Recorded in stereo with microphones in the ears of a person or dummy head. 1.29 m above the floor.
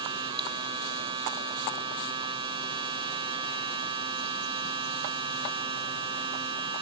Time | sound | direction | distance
0.0 | a machine running | 20° right (ahead or behind) | ?